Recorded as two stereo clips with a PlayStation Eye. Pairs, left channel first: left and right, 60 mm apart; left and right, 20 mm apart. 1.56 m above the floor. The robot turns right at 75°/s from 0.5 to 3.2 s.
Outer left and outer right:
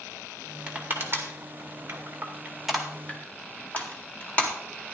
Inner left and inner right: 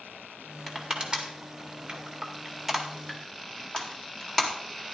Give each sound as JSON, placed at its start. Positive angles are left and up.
{"t": 0.7, "sound": "crushing", "side_deg": -20, "distance_m": 1.9}